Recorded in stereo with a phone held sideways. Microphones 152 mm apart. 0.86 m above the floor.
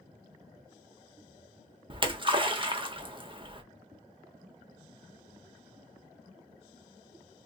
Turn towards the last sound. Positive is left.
turn(degrees=-35)  # may be behind; listen again after turning